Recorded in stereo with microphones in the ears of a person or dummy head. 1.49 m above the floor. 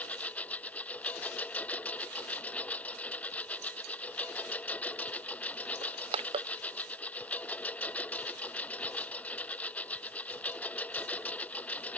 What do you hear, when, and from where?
0.0 s a lawn mower: 10° left (ahead or behind)
5.8 s crushing: 30° right (ahead or behind)